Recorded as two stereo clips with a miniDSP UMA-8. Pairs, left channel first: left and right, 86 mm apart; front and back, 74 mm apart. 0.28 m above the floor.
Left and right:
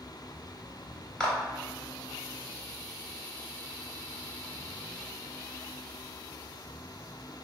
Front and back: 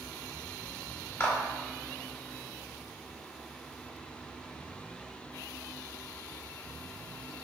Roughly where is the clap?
Ahead.